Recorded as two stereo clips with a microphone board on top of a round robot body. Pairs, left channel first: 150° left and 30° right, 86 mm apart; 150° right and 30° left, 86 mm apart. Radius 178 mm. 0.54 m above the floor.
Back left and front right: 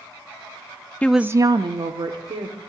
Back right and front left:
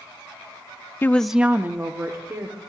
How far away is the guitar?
I don't hear a guitar.